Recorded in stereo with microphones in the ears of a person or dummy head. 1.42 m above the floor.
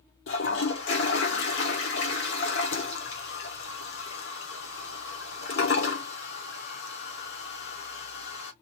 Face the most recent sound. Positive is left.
turn(degrees=65)  # may be behind; listen again after turning